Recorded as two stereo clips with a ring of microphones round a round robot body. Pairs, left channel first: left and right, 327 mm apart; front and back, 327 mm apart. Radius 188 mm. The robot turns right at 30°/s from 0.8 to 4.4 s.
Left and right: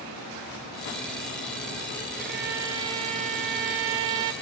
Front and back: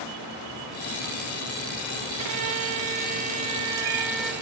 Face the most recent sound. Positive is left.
turn(degrees=-85)